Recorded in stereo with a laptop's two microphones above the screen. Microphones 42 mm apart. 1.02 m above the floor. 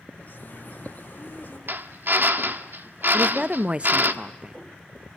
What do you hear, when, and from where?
0.1 s a bird: 40° left (ahead or behind), 5.5 m
1.7 s a drill: 50° right (ahead or behind), 1.4 m
3.1 s a woman speaking: 25° right (ahead or behind), 0.7 m